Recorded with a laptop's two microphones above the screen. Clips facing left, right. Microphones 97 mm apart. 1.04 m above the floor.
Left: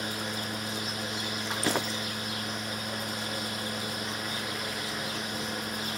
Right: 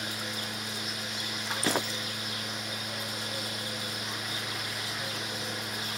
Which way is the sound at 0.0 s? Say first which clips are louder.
Left 3 dB; 40° left (ahead or behind).